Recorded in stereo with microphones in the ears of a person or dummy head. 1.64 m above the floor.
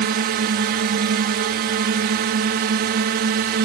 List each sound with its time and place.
0.0 s a drone: 50° right (ahead or behind)